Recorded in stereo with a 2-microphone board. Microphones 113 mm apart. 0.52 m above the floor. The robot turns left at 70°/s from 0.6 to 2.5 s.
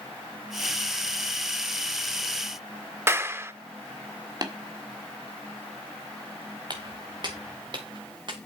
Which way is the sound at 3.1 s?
20° right (ahead or behind).